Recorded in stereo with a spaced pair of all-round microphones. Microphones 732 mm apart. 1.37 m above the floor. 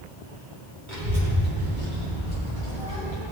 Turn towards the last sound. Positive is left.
turn(degrees=-90)